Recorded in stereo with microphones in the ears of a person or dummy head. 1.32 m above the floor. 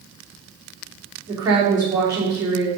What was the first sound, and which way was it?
A woman speaking, 15° right (ahead or behind).